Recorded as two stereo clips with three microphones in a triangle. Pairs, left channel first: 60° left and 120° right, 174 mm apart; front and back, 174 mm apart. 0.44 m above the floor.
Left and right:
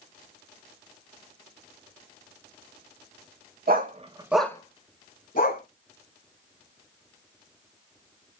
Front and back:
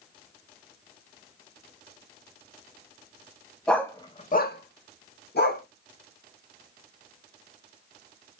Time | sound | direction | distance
3.7 | a dog barking | 85° right | 0.7 m